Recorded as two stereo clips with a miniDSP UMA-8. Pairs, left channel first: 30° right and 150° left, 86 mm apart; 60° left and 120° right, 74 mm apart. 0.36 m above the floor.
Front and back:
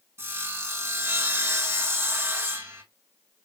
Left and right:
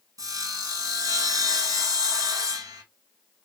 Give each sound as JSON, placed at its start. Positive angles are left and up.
{"t": 0.2, "sound": "sawing", "azimuth_deg": -150, "distance_m": 3.0}